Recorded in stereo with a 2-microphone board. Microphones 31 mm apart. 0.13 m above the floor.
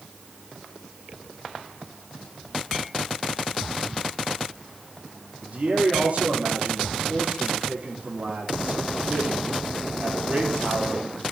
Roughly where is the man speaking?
Right.